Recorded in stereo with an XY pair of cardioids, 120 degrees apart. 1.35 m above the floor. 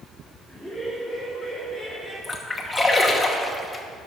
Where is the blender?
No blender in this recording.